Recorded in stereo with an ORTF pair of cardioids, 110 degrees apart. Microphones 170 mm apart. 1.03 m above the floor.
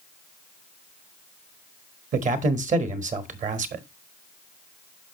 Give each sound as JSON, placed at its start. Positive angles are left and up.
{"t": 2.1, "sound": "a man speaking", "azimuth_deg": -50, "distance_m": 1.2}